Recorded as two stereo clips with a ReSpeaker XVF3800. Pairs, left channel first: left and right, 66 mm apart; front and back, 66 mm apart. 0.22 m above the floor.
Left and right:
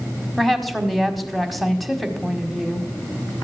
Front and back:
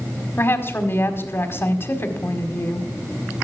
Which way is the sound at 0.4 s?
Straight ahead.